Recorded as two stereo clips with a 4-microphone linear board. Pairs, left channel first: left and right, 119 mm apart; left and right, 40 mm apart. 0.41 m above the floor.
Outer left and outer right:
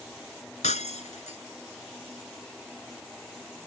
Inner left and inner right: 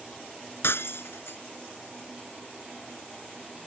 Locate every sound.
0.6 s breaking glass: 75° left (ahead or behind)